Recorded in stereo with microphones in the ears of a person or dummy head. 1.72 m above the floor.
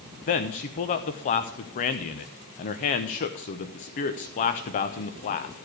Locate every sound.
0.3 s a man speaking: 30° left (ahead or behind), 0.7 m